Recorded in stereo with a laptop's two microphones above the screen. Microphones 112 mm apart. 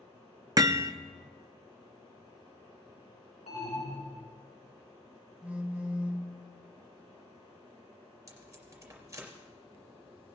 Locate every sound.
0.6 s hammering: 35° right (ahead or behind), 0.6 m
3.5 s an alarm: 85° left, 3 m
5.4 s a phone buzzing: 10° right (ahead or behind), 1.8 m
8.3 s tape being pulled: 30° right (ahead or behind), 3 m